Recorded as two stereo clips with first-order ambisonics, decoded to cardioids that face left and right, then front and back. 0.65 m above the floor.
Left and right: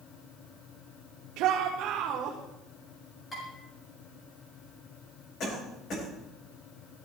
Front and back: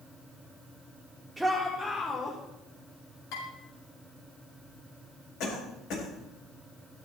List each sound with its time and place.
1.4 s a shout: 95° right, 1.3 m; by 2.4 s 60° right, 2.0 m
3.3 s dishes clattering: 20° left, 5 m
5.4 s a cough: 40° left, 4 m